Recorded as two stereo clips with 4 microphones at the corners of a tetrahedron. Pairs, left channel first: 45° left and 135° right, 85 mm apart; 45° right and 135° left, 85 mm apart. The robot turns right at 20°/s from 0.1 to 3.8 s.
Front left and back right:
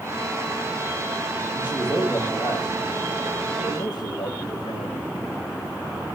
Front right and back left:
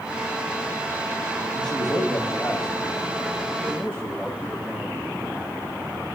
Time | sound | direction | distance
1.5 | a man speaking | 15° right | 2.5 m